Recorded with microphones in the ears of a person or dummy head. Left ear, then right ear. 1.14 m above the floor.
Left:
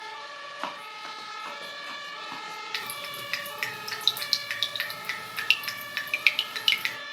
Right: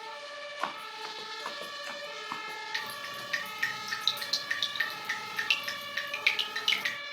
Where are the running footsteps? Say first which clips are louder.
Even; 5° right (ahead or behind), 3 m; by 2.6 s 20° right (ahead or behind), 3.5 m.